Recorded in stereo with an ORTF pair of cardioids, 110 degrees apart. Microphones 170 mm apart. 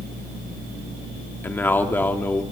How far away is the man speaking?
About 2.5 m.